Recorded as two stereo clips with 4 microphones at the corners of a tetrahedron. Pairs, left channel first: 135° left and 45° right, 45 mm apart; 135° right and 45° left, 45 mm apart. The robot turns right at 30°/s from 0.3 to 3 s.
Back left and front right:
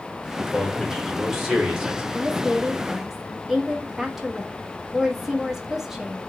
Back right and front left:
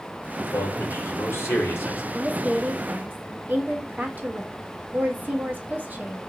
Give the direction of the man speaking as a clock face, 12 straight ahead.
5 o'clock.